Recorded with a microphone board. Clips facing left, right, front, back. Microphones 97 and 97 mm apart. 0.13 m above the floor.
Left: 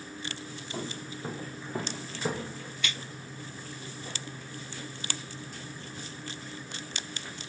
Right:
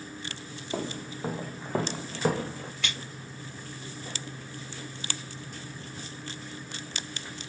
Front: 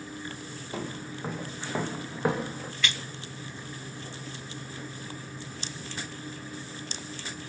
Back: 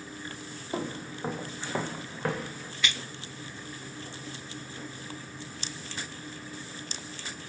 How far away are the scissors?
About 3 m.